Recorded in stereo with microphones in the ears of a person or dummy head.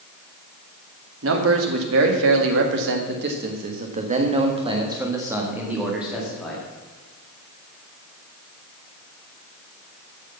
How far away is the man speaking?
About 2.0 m.